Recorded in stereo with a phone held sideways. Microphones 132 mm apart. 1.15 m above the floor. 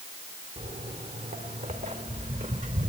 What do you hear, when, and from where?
0.6 s footsteps: 75° right (ahead or behind), 5 m; by 2.9 s 70° right (ahead or behind), 4 m